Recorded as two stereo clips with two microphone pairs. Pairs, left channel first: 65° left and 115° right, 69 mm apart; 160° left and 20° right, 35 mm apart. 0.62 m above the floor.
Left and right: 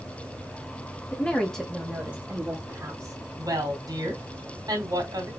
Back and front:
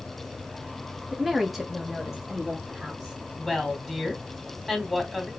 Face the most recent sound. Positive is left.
turn(degrees=-120)